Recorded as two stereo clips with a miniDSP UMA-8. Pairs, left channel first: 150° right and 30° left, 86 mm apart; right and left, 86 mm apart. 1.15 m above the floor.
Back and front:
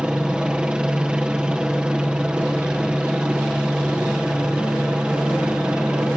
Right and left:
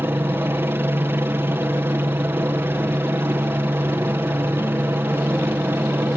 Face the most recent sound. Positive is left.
turn(degrees=100)